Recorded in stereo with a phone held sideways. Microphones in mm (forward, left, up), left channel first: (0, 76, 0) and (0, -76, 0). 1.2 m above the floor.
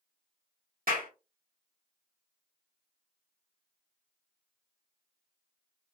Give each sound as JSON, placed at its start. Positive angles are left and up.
{"t": 0.9, "sound": "a clap", "side_deg": -70, "distance_m": 1.6}